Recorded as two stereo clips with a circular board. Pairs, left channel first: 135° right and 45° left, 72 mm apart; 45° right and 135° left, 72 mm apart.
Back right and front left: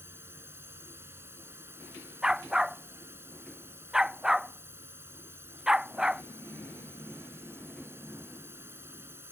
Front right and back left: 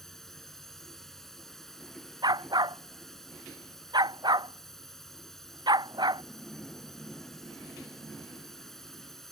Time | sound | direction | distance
0.0 | a drone | 35° left | ?
2.2 | a dog barking | 125° left | ?